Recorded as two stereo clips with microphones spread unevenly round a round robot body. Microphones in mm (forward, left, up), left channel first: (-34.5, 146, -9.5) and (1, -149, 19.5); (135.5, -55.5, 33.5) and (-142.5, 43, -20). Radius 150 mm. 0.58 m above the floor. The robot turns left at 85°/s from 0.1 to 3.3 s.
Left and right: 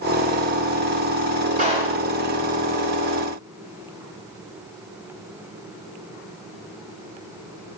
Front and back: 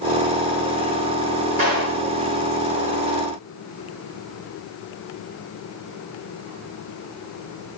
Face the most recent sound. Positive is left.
turn(degrees=65)